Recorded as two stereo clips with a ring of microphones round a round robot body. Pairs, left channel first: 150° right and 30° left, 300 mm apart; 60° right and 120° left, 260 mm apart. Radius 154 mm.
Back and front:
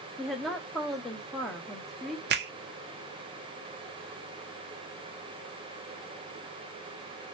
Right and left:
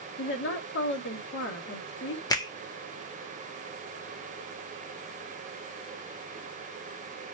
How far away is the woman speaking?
About 0.8 m.